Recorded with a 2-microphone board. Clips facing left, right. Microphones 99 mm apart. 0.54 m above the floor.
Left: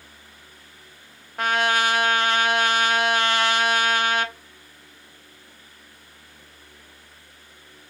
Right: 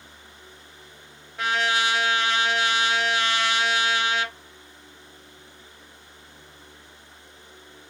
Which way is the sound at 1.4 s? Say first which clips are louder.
Left 3 dB; 50° left (ahead or behind).